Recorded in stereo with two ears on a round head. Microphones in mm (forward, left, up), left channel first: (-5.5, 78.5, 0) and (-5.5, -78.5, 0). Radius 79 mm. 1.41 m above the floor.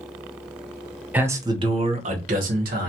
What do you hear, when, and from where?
1.1 s a man speaking: 10° right (ahead or behind), 0.6 m; by 2.9 s 55° right (ahead or behind), 1.2 m